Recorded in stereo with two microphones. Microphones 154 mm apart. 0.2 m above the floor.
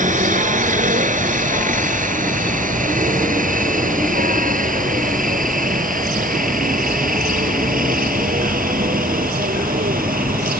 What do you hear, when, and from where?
0.0 s a helicopter: 55° right (ahead or behind); by 10.6 s 70° right (ahead or behind)